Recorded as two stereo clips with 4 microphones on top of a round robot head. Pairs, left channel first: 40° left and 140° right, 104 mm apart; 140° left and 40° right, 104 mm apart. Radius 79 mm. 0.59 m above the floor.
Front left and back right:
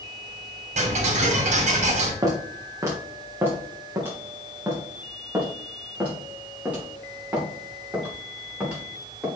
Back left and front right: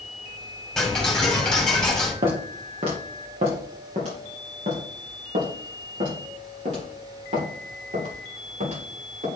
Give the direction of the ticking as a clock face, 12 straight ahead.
4 o'clock.